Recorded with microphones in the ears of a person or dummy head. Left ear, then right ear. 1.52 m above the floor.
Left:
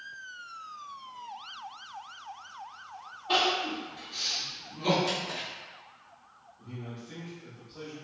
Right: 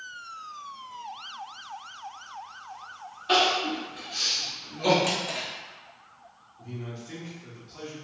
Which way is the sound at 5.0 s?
40° right (ahead or behind).